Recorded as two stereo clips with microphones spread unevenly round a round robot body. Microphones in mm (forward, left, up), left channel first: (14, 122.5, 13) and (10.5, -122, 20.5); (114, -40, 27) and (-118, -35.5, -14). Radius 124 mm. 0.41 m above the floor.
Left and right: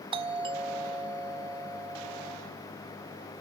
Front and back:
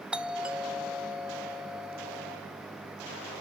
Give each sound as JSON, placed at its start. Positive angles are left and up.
{"t": 0.1, "sound": "a doorbell", "azimuth_deg": -130, "distance_m": 1.3}